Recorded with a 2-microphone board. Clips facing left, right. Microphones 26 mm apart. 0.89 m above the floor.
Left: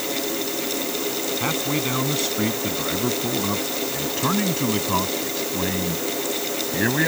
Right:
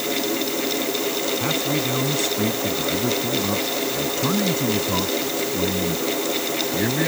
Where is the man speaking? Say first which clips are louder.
Right 1 dB; 20° left (ahead or behind); by 7.1 s 35° left (ahead or behind).